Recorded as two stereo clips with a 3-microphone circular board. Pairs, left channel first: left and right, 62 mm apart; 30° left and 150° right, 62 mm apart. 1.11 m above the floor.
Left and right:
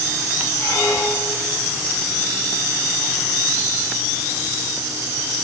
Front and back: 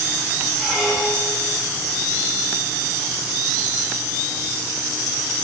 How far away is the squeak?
About 5.5 m.